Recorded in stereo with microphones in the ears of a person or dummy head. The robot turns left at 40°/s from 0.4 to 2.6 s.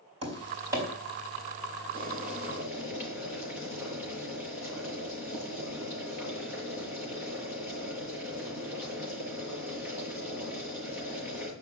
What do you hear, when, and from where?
0.2 s tapping: 30° right (ahead or behind), 4.5 m; by 0.8 s 10° right (ahead or behind), 4.5 m
1.9 s boiling: 40° left (ahead or behind), 8 m; by 11.5 s 70° left (ahead or behind), 8 m